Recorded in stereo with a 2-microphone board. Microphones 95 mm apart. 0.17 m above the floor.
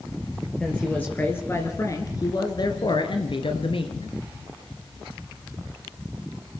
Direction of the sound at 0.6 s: 10° left (ahead or behind).